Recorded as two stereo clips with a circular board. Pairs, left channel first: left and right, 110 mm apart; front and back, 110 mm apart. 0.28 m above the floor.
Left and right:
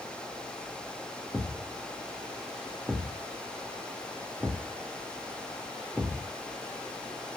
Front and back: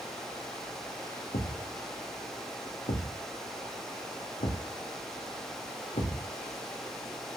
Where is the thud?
Straight ahead, 3 m.